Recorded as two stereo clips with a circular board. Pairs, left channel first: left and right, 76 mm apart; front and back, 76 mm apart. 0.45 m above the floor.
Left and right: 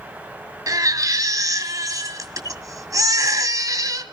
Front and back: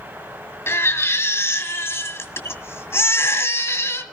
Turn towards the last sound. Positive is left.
turn(degrees=-55)